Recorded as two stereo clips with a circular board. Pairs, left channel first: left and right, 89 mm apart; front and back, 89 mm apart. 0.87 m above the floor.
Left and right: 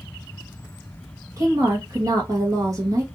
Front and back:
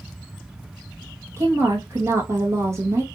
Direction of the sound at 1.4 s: 130° right.